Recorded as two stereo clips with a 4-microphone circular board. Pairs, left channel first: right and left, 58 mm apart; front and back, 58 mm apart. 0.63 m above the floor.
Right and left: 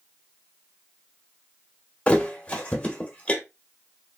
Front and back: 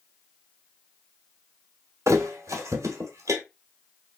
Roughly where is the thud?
Behind.